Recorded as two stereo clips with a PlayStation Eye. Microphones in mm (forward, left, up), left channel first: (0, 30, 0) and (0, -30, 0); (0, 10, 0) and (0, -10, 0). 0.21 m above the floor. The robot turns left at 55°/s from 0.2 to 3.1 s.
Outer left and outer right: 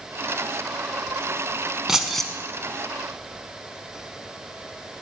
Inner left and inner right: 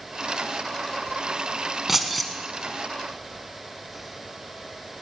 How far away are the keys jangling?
About 1.1 m.